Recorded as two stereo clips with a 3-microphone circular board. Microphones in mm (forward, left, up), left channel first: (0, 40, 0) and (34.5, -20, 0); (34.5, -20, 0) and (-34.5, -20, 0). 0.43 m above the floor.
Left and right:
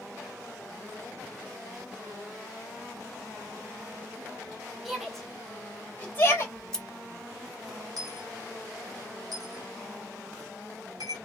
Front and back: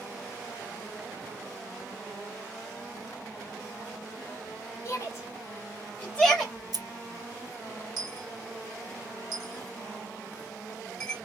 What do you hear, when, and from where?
4.8 s a shout: 25° left, 2 m; by 6.5 s 85° left, 1.7 m
6.5 s scissors: 160° right, 0.8 m
8.0 s a dropped coin: 80° right, 1.7 m